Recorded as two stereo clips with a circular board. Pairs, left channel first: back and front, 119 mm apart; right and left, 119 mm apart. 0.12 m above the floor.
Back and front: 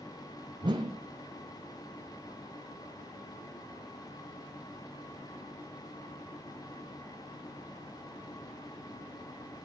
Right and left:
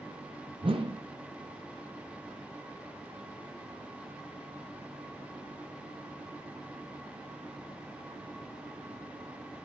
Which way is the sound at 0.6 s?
50° left.